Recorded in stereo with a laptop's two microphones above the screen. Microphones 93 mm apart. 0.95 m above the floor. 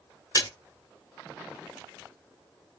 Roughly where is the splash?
Left.